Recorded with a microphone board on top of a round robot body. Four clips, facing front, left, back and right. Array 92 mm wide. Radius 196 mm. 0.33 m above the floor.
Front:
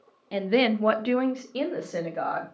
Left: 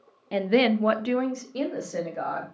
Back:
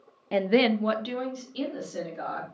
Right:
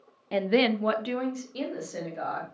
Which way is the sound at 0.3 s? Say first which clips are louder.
Left 2 dB, back 1 dB; 170° right.